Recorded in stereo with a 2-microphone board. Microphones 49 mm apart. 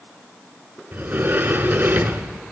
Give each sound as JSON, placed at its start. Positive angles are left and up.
{"t": 0.9, "sound": "a sliding door", "side_deg": -45, "distance_m": 1.1}